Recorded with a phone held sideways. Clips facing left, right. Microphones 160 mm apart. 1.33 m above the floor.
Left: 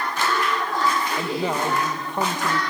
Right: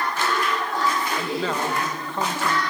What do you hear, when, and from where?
1.2 s a man speaking: 20° left (ahead or behind), 1.6 m